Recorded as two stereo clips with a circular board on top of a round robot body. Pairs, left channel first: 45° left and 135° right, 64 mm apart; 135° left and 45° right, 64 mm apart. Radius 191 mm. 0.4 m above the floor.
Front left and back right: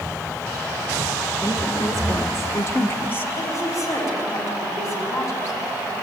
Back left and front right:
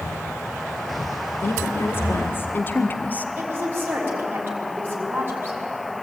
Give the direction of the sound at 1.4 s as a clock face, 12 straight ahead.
9 o'clock.